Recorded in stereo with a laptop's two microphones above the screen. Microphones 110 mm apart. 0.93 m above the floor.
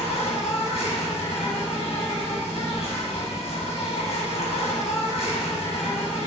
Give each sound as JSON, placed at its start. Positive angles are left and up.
{"t": 0.0, "sound": "an insect", "side_deg": 75, "distance_m": 1.1}